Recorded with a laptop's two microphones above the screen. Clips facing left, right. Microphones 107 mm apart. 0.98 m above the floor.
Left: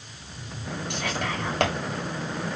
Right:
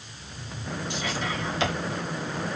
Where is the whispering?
60° left (ahead or behind), 1.5 m.